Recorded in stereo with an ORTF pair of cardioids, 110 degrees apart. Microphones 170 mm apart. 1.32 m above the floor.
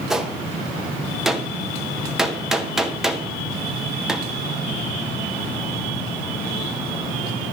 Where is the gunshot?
Straight ahead, 1.3 m.